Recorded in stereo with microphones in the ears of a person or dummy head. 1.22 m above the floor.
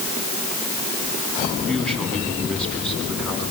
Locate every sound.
1.7 s a man speaking: 10° left (ahead or behind), 9 m